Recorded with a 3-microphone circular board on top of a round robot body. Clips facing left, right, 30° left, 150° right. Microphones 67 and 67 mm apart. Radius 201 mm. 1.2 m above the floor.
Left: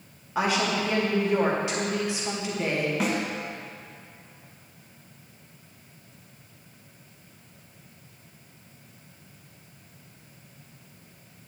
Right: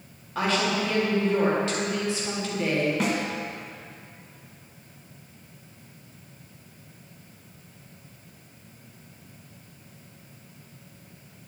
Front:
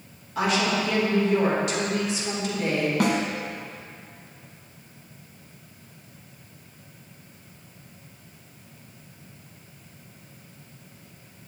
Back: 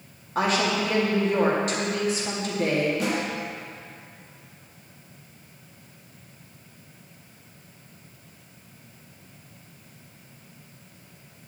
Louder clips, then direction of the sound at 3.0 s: Right 1 dB, front 3 dB; straight ahead.